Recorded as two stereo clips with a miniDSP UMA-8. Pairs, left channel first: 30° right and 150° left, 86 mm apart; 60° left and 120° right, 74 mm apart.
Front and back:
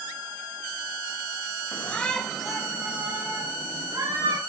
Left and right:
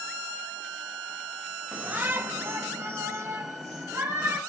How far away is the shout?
About 1.0 m.